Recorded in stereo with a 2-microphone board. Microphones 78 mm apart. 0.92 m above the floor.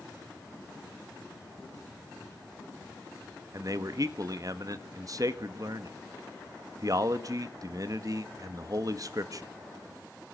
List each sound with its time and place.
3.5 s a man speaking: 50° right (ahead or behind), 1.4 m